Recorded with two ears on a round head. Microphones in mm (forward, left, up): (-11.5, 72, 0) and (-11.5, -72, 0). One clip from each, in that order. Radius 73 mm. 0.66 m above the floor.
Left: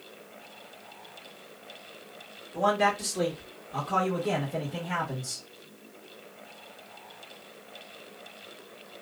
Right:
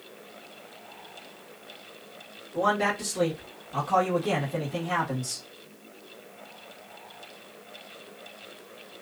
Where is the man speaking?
30° left (ahead or behind), 1.3 m; by 5.4 s 25° right (ahead or behind), 1.5 m.